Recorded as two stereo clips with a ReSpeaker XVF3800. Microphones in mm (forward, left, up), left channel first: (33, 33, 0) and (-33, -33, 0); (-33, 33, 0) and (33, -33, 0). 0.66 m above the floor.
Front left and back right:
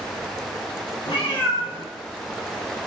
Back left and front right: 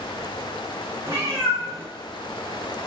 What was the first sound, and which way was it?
A cat meowing, 10° left.